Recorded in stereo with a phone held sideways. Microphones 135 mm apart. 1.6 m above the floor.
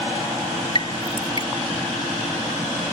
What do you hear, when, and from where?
0.8 s dripping: 40° left (ahead or behind)